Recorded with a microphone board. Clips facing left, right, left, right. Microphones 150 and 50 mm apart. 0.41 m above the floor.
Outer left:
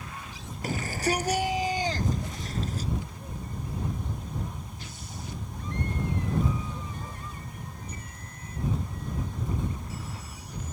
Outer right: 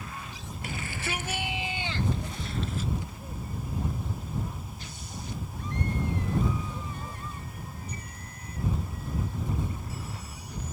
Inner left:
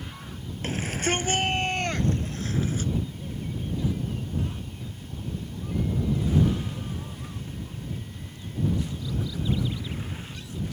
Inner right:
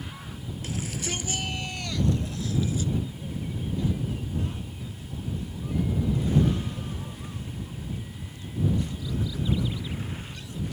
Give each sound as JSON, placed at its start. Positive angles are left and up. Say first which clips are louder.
{"t": 0.6, "sound": "a shout", "louder": "outer left 8 dB, inner left 6 dB", "side_deg": 40}